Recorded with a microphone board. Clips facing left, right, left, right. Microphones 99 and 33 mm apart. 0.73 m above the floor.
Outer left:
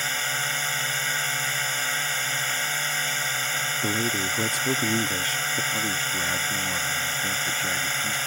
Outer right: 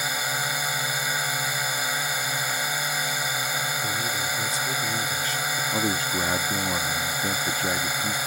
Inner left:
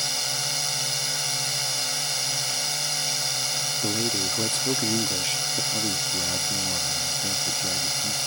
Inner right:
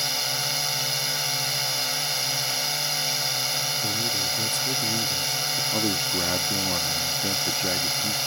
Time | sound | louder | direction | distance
0.0 | a drone | outer right 1 dB, inner right 1 dB | 10° right (ahead or behind) | ?
3.8 | a man speaking | outer left 2 dB, even | 55° left (ahead or behind) | ?
5.7 | a man speaking | outer right 3 dB, inner right 2 dB | 30° right (ahead or behind) | ?